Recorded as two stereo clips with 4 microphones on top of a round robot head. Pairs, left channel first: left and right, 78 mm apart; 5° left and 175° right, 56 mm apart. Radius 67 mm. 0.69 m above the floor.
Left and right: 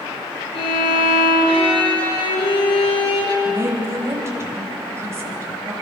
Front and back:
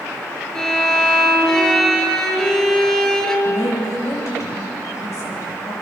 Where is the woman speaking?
35° right, 5 m.